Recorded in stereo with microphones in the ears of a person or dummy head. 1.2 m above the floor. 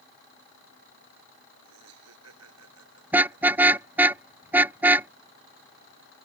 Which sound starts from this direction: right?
Laughter, at 1.6 s.